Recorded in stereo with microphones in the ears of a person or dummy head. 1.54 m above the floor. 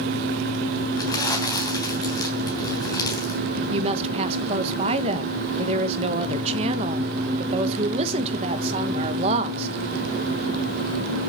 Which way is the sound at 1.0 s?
20° left (ahead or behind).